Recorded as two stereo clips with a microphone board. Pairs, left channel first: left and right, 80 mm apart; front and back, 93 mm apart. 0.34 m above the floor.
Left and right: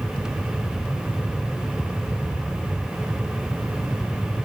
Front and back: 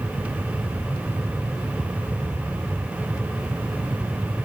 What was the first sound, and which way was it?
Only background noise.